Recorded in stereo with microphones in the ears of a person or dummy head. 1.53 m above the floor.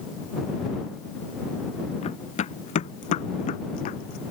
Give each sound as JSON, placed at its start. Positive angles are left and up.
{"t": 2.0, "sound": "running footsteps", "side_deg": 40}